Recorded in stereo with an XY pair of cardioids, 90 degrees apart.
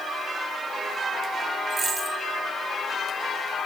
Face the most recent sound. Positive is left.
turn(degrees=-50)